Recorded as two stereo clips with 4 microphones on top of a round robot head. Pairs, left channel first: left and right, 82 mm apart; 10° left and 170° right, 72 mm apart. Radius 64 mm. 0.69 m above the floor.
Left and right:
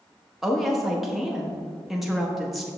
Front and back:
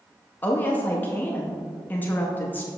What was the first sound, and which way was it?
A woman speaking, straight ahead.